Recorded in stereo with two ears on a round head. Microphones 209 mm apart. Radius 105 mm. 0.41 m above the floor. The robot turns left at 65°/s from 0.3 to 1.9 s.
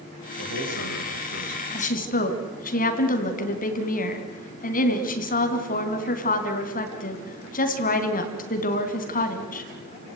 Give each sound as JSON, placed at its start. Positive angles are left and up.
{"t": 0.4, "sound": "a man speaking", "azimuth_deg": -55, "distance_m": 7.5}
{"t": 1.7, "sound": "a woman speaking", "side_deg": 30, "distance_m": 3.0}